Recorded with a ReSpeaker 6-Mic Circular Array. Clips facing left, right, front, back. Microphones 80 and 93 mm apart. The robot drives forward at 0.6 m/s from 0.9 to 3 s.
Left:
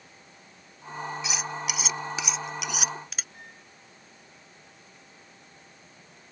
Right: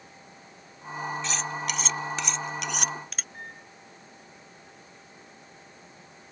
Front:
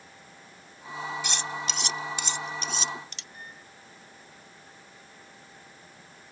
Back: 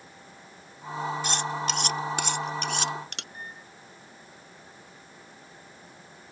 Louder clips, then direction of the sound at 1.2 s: Right 1 dB, back 4 dB; 165° left.